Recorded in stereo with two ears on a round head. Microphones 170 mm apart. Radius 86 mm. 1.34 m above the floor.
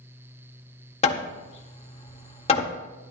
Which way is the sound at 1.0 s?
35° left (ahead or behind).